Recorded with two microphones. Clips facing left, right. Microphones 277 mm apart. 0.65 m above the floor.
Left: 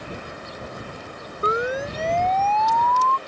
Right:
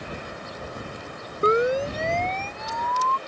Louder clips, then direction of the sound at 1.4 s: Right 4 dB; 30° right (ahead or behind).